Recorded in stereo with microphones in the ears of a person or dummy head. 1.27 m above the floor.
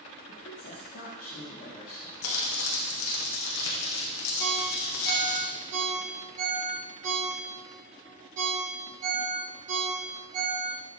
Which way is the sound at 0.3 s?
80° left.